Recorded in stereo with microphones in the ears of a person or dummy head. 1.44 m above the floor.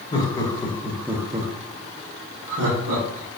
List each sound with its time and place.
0.1 s laughter: 30° left (ahead or behind), 1.0 m; by 3.4 s 75° right (ahead or behind), 1.5 m